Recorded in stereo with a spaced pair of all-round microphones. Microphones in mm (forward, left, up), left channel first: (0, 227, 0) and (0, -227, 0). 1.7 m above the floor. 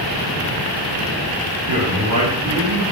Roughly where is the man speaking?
Right.